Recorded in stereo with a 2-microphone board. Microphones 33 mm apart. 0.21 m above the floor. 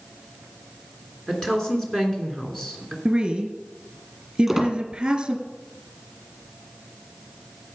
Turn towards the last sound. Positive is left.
turn(degrees=-5)  # may be behind; listen again after turning